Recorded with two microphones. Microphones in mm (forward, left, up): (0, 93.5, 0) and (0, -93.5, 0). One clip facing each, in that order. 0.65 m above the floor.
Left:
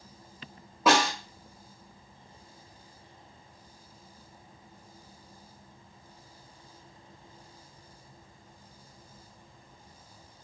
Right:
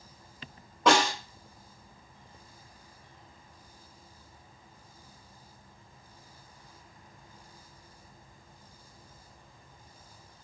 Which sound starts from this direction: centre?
A snare drum, at 0.9 s.